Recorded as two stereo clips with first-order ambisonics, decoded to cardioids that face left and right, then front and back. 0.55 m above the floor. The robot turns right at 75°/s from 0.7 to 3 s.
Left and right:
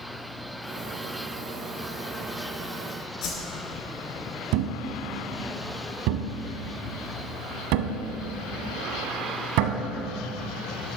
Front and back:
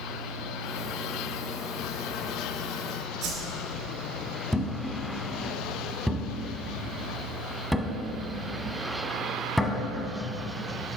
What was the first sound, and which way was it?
A whoosh, 130° left.